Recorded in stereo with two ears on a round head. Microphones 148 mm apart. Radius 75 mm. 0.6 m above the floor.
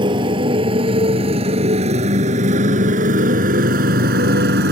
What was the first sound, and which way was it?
A motorcycle, 30° right (ahead or behind).